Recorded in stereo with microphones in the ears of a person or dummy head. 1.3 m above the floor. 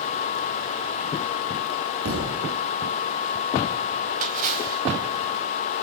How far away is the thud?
About 8.5 m.